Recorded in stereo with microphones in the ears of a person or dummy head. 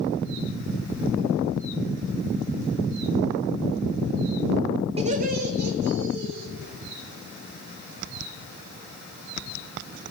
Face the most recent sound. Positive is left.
turn(degrees=-65)  # may be behind; listen again after turning